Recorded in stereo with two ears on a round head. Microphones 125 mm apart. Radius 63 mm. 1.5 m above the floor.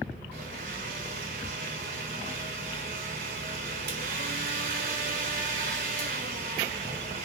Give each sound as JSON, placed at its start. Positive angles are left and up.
{"t": 0.3, "sound": "a blender", "side_deg": -70, "distance_m": 3.0}